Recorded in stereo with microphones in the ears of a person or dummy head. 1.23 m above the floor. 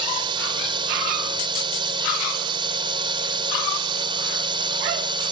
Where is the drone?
25° right (ahead or behind).